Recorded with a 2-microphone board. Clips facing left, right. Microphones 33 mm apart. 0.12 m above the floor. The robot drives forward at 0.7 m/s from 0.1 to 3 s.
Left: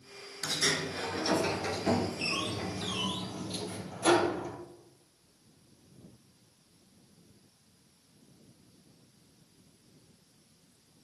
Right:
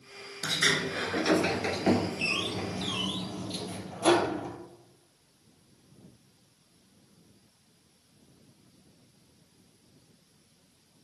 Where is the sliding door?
40° right (ahead or behind), 0.9 m; by 4.6 s 15° right (ahead or behind), 1.9 m.